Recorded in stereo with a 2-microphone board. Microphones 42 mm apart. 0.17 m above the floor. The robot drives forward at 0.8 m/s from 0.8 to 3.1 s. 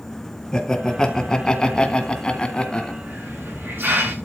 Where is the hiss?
50° right (ahead or behind), 8.5 m.